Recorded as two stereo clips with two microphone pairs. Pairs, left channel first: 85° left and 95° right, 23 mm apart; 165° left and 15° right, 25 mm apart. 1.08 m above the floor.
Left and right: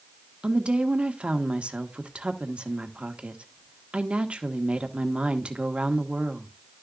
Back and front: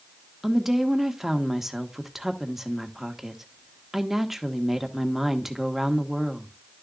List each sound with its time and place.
0.4 s a woman speaking: 90° right, 1.3 m